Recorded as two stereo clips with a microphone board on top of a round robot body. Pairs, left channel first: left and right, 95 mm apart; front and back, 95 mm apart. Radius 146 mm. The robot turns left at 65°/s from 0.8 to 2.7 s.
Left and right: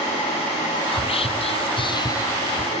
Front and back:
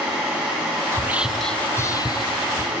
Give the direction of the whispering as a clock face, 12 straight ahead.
8 o'clock.